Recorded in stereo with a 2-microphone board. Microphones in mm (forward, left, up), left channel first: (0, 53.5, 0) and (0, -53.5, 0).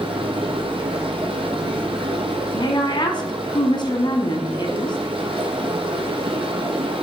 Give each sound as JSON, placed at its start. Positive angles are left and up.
{"t": 0.0, "sound": "running water", "side_deg": -60, "distance_m": 1.6}
{"t": 2.5, "sound": "a woman speaking", "side_deg": 45, "distance_m": 1.6}